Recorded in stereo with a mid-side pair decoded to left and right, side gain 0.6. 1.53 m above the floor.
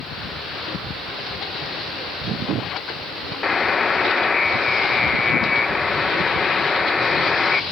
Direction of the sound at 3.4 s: 30° left.